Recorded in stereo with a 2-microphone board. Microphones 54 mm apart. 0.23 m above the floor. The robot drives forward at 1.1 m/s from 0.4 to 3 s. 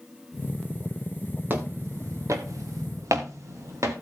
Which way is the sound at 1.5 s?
40° right (ahead or behind).